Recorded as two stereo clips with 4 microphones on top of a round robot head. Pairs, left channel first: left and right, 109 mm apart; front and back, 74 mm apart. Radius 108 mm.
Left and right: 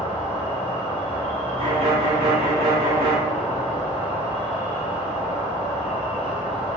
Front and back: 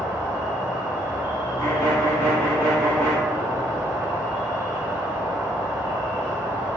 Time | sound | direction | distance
0.0 | an insect | 135° left | 1.4 m
1.6 | a violin | 65° right | 1.0 m